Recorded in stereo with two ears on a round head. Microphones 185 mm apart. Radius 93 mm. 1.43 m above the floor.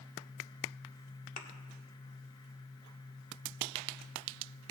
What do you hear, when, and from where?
1.4 s a thud: 40° left (ahead or behind), 1.4 m